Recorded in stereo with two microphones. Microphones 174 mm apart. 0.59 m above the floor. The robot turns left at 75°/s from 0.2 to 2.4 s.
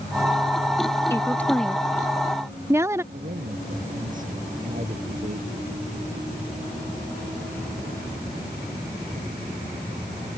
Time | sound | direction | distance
1.1 | a woman speaking | 15° left (ahead or behind) | ?
3.1 | a man speaking | 50° right (ahead or behind) | ?